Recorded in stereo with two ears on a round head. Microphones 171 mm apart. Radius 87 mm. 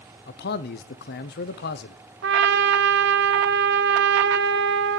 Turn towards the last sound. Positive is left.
turn(degrees=-65)  # may be behind; listen again after turning